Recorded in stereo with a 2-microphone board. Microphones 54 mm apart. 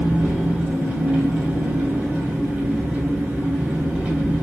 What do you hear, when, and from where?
0.0 s an engine running: 25° right (ahead or behind), 2 m